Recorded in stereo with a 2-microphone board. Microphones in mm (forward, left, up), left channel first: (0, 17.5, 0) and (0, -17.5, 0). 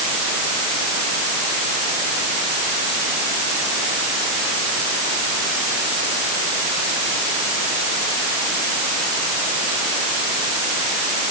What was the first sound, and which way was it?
Only background noise.